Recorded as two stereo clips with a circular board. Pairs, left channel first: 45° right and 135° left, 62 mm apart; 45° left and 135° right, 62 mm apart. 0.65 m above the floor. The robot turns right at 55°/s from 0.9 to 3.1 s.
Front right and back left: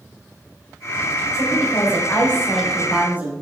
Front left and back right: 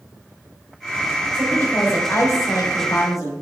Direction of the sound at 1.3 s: 25° right.